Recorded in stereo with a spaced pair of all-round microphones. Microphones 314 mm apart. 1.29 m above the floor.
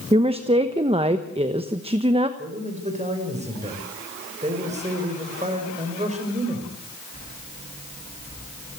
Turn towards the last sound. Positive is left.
turn(degrees=-20)  # may be behind; listen again after turning